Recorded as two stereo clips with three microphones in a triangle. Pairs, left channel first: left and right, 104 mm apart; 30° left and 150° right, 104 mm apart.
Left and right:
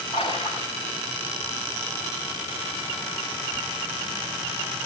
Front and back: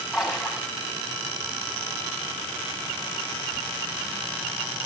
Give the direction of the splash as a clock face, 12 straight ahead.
8 o'clock.